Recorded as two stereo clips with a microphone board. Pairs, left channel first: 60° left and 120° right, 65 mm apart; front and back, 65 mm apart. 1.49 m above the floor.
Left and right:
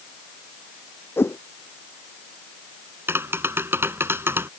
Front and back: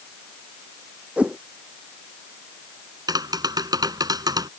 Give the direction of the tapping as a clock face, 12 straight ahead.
6 o'clock.